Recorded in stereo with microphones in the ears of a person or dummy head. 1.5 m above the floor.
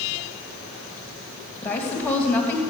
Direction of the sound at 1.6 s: 10° left (ahead or behind).